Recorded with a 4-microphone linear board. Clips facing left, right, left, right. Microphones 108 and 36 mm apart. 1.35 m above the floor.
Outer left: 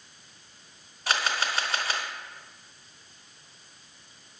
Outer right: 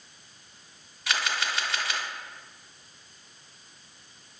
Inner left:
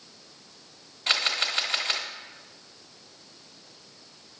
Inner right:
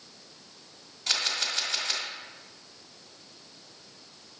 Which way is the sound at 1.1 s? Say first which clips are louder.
Outer left 2 dB, inner left 4 dB; 40° left (ahead or behind).